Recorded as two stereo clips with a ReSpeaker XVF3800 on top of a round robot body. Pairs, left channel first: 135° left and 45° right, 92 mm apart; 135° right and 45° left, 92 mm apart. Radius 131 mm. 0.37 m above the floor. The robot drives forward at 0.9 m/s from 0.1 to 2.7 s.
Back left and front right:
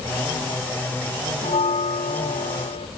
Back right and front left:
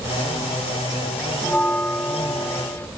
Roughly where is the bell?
Behind left.